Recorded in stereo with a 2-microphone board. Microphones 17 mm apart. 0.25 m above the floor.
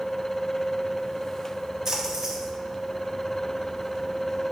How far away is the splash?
About 1.7 m.